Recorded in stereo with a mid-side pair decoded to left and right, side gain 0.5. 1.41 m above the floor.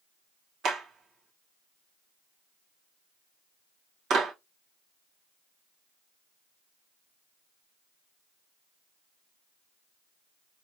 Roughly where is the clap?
Ahead right.